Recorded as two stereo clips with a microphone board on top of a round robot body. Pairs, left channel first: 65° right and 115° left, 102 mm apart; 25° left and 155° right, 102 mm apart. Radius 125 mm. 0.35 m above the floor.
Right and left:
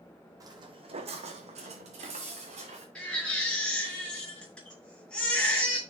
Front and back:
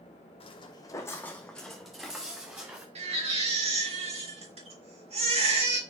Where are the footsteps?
55° left, 1.0 m; by 2.9 s 125° left, 2.5 m.